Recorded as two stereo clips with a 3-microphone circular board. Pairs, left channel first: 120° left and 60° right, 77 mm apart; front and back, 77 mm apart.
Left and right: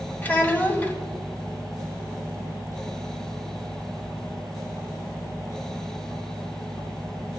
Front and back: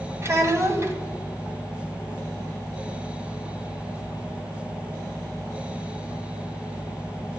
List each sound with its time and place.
0.2 s a child speaking: 170° left, 1.3 m